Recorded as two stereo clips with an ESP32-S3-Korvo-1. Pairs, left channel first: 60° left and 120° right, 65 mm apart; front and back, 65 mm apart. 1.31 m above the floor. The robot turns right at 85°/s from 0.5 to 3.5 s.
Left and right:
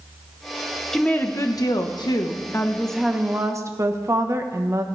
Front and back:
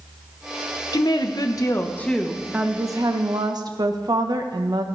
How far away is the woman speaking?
About 1.1 m.